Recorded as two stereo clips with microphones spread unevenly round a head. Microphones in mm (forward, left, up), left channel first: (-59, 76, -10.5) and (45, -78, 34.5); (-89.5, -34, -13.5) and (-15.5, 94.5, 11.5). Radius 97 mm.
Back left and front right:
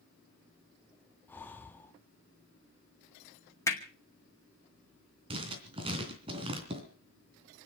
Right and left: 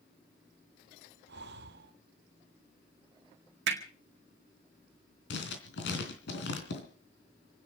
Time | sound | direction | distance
1.3 | breathing | 40° left | 0.9 m
3.7 | hammering | 50° left | 2.5 m
5.3 | writing | 115° right | 3 m